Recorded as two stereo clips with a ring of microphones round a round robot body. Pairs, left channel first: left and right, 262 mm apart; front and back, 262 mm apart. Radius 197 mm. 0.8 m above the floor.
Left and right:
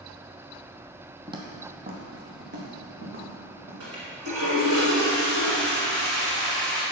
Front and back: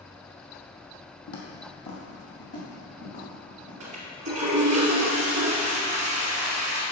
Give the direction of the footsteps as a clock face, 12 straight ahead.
1 o'clock.